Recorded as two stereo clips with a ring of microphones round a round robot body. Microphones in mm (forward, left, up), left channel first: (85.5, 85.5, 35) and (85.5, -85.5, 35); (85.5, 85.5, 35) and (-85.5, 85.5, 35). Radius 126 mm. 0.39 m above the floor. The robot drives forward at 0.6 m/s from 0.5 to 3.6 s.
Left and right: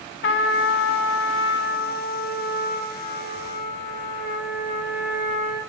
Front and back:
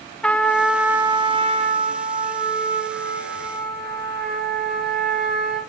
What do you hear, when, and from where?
0.2 s a trumpet: 85° left, 0.8 m; by 5.6 s 155° left, 1.9 m